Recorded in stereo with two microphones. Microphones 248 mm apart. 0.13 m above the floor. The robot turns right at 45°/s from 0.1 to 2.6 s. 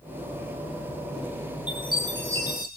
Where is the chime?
150° right, 3 m; by 2.7 s 110° right, 3 m.